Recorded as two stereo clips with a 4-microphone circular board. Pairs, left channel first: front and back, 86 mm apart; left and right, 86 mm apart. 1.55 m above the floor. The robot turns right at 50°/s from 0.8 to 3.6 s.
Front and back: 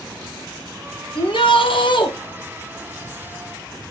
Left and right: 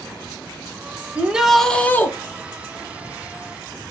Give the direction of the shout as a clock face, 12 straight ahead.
1 o'clock.